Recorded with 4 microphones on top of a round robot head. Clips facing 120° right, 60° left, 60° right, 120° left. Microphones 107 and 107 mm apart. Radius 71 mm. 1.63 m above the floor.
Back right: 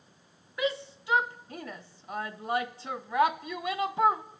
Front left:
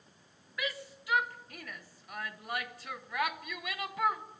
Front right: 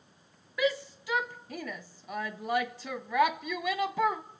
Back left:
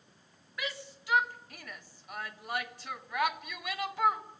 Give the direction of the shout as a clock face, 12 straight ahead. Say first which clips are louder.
Back right 8 dB, front right 11 dB; 2 o'clock.